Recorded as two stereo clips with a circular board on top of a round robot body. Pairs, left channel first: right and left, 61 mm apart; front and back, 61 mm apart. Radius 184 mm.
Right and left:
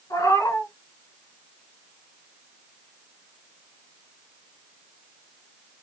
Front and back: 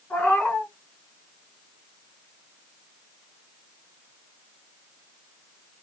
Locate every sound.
0.1 s a cat meowing: 70° right, 1.4 m